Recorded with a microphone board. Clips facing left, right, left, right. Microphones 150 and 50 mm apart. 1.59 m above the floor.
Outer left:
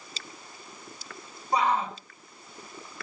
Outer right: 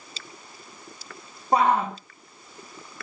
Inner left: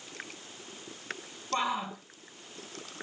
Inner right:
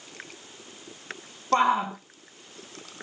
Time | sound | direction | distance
1.5 | a shout | 70° right (ahead or behind) | 1.4 m